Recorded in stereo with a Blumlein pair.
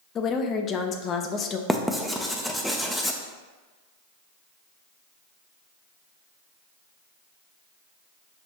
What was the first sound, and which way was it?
A woman speaking, 25° left.